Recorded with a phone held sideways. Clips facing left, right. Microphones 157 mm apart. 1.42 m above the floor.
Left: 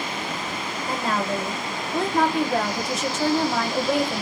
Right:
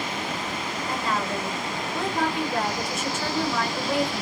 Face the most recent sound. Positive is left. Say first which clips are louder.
# left 3 dB
turn(degrees=75)  # may be behind; listen again after turning